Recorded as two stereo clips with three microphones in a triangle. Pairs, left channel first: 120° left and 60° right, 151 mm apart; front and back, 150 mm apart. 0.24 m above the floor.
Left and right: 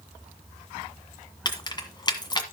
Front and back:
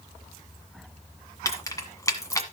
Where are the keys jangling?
65° left, 1.6 m.